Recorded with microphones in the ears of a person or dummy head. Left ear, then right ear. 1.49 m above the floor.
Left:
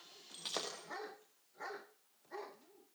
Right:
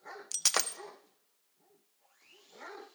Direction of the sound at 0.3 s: 50° right (ahead or behind).